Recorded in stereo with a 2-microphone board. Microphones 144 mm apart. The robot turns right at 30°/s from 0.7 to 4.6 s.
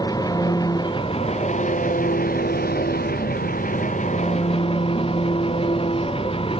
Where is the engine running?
25° left; by 6.6 s 145° left.